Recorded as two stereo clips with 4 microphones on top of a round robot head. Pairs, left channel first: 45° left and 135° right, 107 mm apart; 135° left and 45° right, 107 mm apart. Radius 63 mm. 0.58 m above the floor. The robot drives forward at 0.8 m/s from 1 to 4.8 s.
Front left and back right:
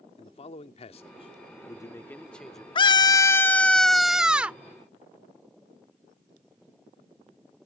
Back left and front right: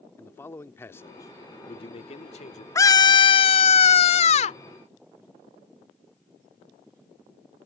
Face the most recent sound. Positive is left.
turn(degrees=155)